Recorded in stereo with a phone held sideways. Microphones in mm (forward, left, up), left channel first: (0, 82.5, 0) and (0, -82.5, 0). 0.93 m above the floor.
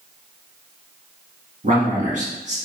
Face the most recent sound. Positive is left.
turn(degrees=-50)  # may be behind; listen again after turning